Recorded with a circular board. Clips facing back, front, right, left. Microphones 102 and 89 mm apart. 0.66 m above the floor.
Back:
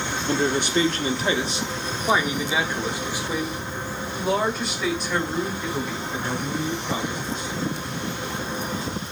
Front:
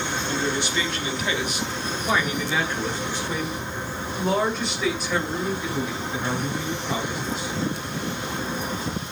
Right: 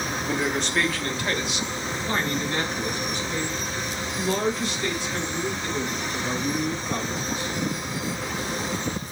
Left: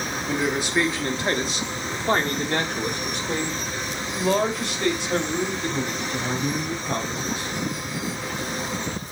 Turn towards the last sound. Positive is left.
turn(degrees=85)